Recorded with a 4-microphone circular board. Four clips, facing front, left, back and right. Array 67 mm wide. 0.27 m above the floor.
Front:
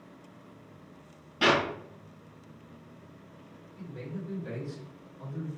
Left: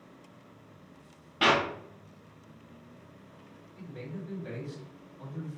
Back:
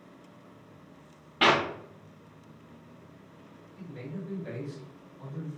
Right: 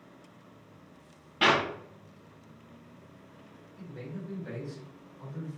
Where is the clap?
Straight behind, 0.9 m.